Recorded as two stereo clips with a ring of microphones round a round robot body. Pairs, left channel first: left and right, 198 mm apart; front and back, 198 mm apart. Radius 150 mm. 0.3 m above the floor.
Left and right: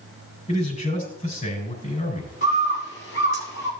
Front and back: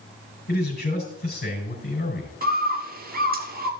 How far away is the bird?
About 2 m.